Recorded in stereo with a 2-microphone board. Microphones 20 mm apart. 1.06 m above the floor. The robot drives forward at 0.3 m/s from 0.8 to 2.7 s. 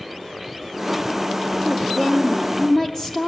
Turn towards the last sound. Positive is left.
turn(degrees=15)  # may be behind; listen again after turning